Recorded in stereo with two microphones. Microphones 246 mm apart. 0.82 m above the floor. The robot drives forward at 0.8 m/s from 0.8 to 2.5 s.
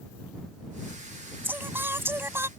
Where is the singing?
10° right (ahead or behind).